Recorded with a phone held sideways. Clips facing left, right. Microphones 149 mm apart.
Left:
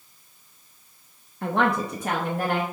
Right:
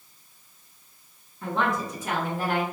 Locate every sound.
1.4 s a woman speaking: 75° left (ahead or behind), 0.6 m; by 2.6 s 60° left (ahead or behind), 1.1 m